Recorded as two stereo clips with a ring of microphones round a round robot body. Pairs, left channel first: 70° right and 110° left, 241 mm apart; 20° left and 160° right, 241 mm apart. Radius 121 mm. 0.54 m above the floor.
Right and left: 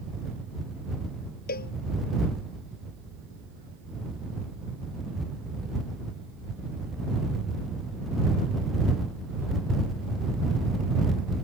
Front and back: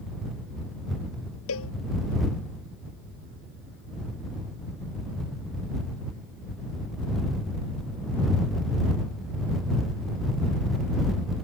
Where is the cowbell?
15° right.